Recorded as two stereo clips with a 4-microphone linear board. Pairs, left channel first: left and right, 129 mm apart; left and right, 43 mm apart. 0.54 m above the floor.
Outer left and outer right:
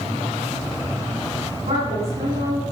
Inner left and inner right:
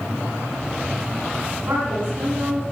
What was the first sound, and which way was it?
A woman speaking, 60° right (ahead or behind).